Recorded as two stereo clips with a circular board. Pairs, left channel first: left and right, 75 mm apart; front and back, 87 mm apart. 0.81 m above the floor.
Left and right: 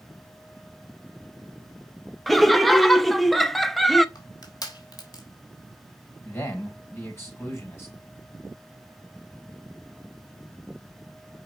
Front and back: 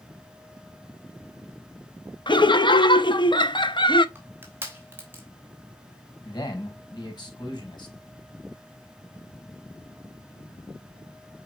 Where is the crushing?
115° left, 3 m.